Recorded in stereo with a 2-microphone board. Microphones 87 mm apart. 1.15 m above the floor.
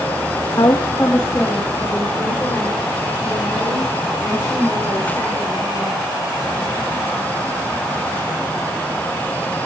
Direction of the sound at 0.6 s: 45° left (ahead or behind).